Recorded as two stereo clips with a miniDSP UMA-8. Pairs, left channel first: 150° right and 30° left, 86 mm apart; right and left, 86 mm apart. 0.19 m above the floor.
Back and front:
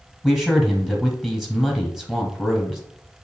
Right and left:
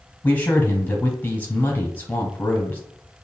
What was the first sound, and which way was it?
A man speaking, 50° right.